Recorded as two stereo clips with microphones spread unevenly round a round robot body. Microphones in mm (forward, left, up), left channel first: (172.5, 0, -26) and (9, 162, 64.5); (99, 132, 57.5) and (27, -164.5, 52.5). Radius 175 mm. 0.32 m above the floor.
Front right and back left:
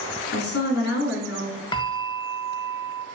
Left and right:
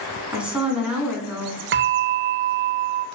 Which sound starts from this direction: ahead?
A woman speaking, at 0.3 s.